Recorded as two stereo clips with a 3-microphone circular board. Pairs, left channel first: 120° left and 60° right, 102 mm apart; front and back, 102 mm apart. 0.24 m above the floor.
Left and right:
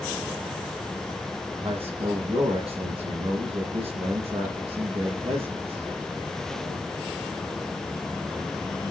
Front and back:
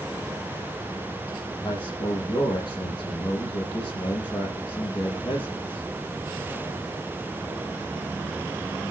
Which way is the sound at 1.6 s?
40° right.